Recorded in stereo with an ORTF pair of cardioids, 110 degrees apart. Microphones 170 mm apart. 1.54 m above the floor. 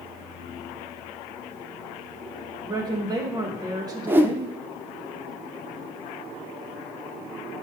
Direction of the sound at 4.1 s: 10° right.